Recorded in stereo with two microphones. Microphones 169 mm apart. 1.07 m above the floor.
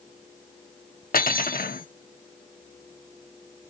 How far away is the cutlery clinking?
About 1.0 m.